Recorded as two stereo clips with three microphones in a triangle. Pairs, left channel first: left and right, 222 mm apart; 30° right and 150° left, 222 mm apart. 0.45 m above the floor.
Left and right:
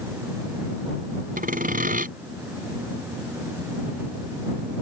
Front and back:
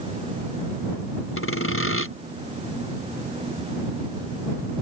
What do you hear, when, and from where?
1.4 s sawing: 40° right